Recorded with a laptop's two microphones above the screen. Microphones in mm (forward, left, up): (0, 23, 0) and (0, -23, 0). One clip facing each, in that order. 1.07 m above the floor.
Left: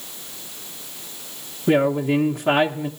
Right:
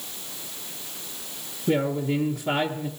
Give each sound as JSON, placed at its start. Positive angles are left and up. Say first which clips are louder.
{"t": 1.7, "sound": "a woman speaking", "louder": "left 6 dB", "side_deg": 60, "distance_m": 0.9}